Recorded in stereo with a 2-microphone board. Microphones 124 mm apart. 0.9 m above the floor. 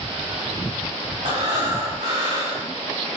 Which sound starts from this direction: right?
Breathing, at 1.2 s.